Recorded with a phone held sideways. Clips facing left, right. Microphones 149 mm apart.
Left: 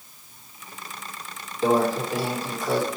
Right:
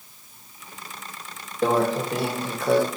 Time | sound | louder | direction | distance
1.6 | a microwave | even | 60° right (ahead or behind) | 1.1 m